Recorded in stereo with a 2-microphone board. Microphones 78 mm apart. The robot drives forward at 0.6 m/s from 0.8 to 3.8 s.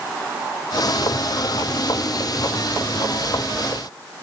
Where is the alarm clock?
I don't hear an alarm clock.